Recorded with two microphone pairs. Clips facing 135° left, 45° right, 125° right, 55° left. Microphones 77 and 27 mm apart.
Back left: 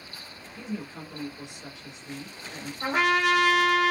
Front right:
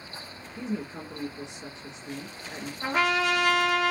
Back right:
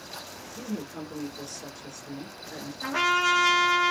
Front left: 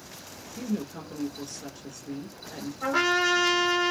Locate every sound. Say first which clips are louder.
0.6 s a woman speaking: front right 3 dB, front left 3 dB; 35° right, 1.8 m
2.8 s a trumpet: back left 2 dB, even; 105° left, 2 m